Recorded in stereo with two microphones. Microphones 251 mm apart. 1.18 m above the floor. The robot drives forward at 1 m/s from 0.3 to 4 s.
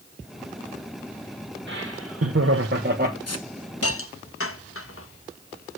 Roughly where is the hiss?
Left.